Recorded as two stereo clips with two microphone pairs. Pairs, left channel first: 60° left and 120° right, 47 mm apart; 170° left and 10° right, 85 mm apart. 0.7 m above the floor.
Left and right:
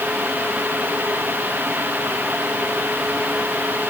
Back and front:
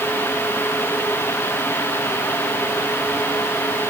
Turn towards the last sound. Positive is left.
No sound to turn to.